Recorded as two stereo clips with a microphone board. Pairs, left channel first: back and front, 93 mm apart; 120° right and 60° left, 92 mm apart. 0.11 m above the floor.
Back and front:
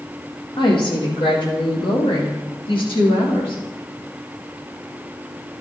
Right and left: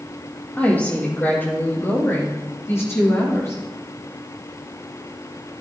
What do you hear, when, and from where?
0.6 s a woman speaking: 170° left, 4 m; by 3.6 s 175° right, 7 m